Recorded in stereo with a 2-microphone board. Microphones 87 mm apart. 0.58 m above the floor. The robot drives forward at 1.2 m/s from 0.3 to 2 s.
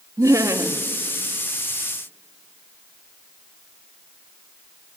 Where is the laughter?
40° right (ahead or behind), 1.1 m; by 0.8 s 30° right (ahead or behind), 1.5 m.